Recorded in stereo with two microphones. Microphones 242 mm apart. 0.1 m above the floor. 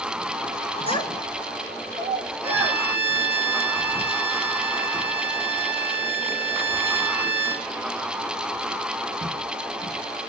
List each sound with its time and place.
0.9 s a child speaking: 25° left (ahead or behind), 0.7 m; by 2.8 s 30° right (ahead or behind), 2.5 m
2.4 s a violin: 25° right (ahead or behind), 8.5 m